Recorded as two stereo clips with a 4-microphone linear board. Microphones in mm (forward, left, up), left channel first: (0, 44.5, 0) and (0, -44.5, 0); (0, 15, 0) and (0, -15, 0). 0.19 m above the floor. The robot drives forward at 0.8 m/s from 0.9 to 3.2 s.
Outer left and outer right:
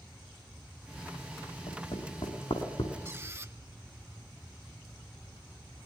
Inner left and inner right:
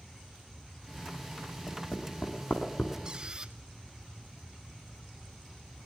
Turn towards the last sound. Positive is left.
turn(degrees=-35)  # may be behind; listen again after turning